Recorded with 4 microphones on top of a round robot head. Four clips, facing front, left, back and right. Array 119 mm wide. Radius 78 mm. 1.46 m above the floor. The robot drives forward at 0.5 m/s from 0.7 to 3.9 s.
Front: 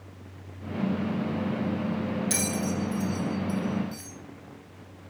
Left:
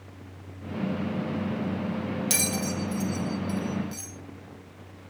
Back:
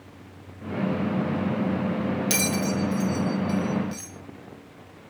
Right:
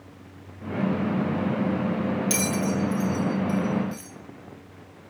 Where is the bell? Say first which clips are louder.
Right 5 dB, back 3 dB; 165° left, 1.8 m; by 4.1 s 170° left, 2.5 m.